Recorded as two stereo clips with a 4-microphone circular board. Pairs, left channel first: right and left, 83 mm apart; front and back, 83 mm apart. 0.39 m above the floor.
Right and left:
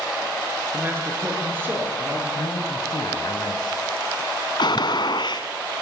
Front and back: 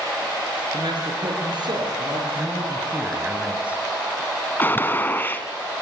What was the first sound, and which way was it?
A man speaking, 155° left.